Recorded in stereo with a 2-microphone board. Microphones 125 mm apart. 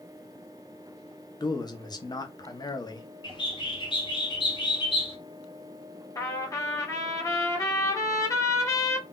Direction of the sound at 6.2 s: 25° left (ahead or behind).